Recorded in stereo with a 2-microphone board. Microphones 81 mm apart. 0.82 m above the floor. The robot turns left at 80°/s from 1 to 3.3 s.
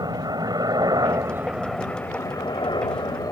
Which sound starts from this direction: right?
A helicopter, at 0.0 s.